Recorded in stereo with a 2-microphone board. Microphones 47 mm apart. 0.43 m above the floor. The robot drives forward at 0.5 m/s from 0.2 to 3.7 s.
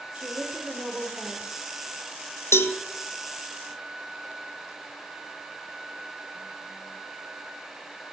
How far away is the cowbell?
About 0.5 m.